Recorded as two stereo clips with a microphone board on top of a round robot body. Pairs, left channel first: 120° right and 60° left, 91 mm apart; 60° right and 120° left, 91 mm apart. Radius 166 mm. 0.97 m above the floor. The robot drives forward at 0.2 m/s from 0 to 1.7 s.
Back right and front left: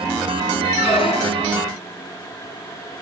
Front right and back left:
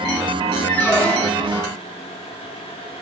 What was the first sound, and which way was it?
A squeak, 130° right.